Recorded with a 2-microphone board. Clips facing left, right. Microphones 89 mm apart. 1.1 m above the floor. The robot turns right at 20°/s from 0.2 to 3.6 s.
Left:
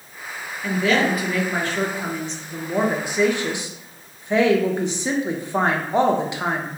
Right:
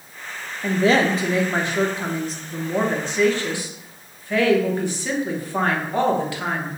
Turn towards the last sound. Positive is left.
turn(degrees=20)